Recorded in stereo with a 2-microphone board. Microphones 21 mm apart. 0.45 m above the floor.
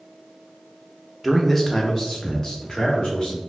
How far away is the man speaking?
About 0.8 m.